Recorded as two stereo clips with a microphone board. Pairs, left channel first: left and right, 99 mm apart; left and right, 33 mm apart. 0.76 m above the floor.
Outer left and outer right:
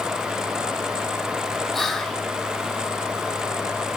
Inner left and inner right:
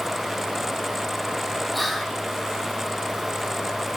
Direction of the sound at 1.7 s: Centre (ahead or behind).